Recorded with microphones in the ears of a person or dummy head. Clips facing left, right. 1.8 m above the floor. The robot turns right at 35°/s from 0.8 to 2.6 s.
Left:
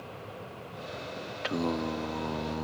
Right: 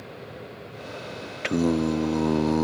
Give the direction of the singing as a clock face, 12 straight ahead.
5 o'clock.